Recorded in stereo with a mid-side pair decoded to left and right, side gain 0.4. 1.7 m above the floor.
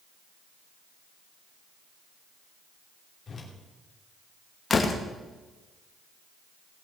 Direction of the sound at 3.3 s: 45° left.